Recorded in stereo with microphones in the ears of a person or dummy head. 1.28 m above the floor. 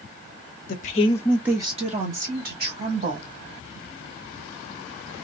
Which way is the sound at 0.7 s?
45° left (ahead or behind).